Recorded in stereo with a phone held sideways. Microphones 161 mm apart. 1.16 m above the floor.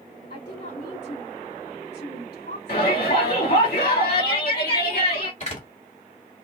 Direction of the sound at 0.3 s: 85° left.